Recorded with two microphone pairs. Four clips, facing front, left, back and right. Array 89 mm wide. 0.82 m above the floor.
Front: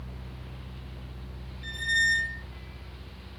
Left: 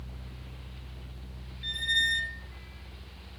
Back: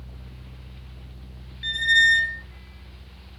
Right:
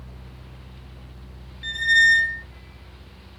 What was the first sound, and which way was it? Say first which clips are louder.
A squeak: right 13 dB, back 7 dB; 145° right.